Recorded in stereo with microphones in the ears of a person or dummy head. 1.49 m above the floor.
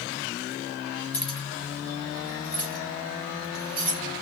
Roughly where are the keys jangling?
Centre.